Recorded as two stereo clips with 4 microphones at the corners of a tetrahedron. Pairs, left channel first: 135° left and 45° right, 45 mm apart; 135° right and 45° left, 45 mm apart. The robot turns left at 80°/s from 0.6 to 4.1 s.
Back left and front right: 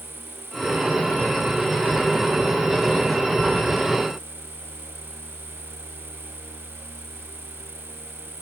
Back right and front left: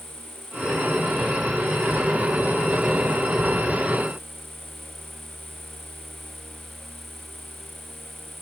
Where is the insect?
130° right; by 8.4 s 50° right.